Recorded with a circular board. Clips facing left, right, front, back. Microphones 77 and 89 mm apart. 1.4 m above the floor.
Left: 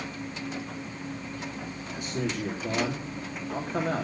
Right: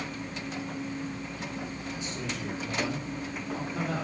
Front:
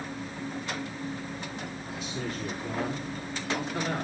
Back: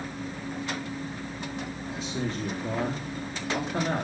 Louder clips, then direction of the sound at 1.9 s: Left 8 dB, back 3 dB; 125° left.